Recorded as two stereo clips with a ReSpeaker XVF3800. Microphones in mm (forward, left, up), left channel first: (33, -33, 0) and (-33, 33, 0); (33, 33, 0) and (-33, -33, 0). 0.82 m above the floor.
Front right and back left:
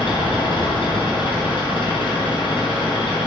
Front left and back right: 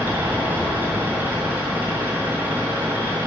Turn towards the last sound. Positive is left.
turn(degrees=-70)